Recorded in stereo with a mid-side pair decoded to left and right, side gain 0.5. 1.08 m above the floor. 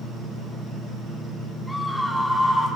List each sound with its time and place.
1.7 s a scream: 10° left, 2.5 m